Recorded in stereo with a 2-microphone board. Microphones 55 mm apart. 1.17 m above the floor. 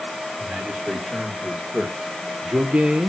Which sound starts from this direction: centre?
A man speaking, at 0.4 s.